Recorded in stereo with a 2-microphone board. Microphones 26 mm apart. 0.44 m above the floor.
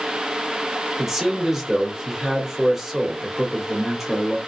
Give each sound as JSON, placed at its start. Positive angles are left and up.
{"t": 1.0, "sound": "a man speaking", "side_deg": -10, "distance_m": 1.4}